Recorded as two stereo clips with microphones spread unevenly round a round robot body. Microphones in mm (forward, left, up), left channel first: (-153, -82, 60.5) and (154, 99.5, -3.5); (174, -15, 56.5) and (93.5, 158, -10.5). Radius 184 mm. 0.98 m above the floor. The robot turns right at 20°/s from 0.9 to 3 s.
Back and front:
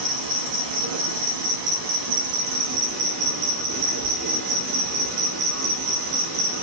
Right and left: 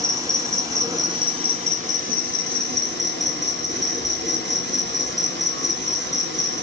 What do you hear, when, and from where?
0.0 s an insect: 40° left, 1.0 m; by 6.6 s 85° left, 1.0 m